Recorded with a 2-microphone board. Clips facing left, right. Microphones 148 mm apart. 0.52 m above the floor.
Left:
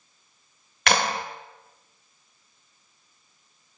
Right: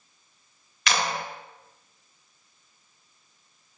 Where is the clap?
60° left (ahead or behind), 1.4 m.